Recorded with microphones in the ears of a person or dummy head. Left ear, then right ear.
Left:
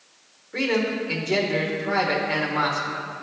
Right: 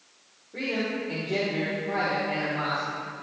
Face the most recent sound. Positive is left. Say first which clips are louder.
# left 6 dB
turn(degrees=55)  # may be behind; listen again after turning